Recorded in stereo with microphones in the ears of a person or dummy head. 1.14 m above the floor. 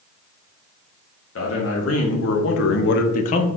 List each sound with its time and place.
1.4 s a man speaking: 75° left (ahead or behind), 1.2 m; by 3.5 s 35° left (ahead or behind), 0.6 m